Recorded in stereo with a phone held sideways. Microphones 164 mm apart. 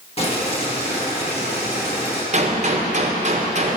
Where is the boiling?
40° left (ahead or behind), 1.4 m.